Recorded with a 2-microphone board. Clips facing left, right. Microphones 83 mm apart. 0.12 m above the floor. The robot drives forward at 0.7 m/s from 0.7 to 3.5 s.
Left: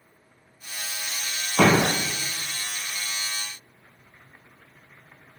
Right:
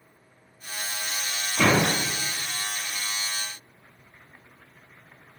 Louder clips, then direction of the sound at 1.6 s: Left 3 dB; 65° left (ahead or behind).